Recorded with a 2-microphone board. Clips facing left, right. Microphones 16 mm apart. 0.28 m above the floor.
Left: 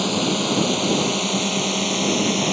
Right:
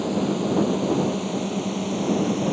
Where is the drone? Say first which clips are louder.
Left 3 dB; 65° left (ahead or behind).